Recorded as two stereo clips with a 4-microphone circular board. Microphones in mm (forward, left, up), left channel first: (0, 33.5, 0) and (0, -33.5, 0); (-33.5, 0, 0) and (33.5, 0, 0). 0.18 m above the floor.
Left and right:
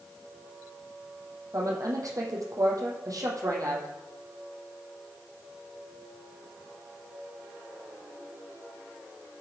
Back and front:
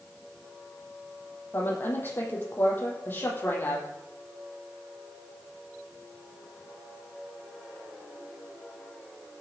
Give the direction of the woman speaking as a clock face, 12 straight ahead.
4 o'clock.